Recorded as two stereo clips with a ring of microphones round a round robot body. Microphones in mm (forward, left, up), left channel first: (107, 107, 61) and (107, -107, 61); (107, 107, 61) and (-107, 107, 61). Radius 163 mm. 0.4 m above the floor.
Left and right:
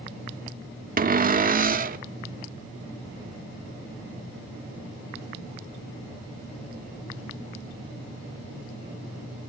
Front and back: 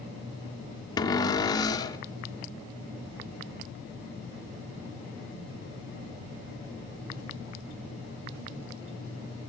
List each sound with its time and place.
1.0 s a cupboard door: 65° right, 0.8 m